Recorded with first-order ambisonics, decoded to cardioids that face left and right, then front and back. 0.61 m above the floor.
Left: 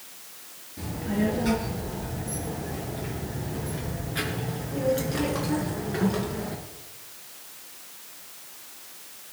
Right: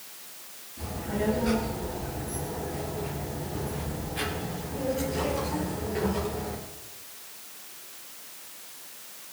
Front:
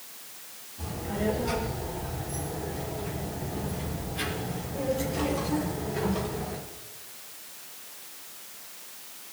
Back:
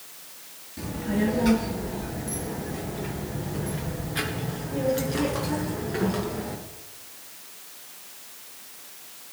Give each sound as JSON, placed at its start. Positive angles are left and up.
{"t": 0.8, "sound": "a child speaking", "azimuth_deg": 155, "distance_m": 7.5}